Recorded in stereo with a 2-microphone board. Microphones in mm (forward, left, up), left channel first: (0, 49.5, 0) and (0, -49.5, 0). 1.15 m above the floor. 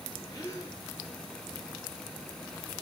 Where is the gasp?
35° left (ahead or behind), 8.5 m.